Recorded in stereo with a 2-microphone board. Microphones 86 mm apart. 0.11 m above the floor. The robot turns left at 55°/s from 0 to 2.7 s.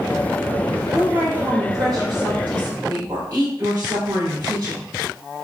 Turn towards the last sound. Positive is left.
turn(degrees=-105)